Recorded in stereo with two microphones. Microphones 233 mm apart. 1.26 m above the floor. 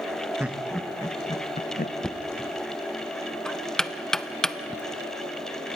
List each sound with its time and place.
0.4 s laughter: 5° right (ahead or behind), 1.0 m; by 1.9 s 40° left (ahead or behind), 0.8 m
2.0 s knocking: 5° left (ahead or behind), 0.5 m